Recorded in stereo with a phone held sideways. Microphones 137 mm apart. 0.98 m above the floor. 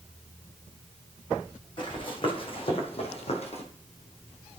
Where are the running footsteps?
35° left (ahead or behind), 2 m; by 3.6 s 50° left (ahead or behind), 1.5 m.